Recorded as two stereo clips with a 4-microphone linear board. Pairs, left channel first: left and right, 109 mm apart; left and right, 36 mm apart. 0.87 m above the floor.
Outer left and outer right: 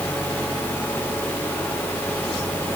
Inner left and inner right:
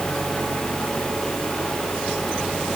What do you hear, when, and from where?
Only background noise.